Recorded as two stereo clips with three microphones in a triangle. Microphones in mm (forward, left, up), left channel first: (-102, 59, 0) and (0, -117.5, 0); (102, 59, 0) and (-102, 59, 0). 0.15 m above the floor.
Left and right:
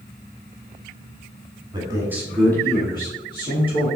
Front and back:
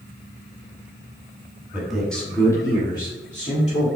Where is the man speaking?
100° right, 1.4 m; by 3.9 s 65° left, 3 m.